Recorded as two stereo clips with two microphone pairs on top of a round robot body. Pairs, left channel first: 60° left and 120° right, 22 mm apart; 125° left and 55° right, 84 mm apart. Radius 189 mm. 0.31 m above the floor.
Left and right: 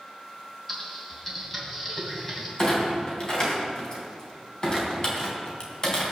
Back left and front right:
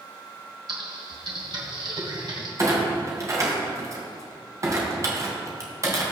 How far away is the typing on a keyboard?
About 3 m.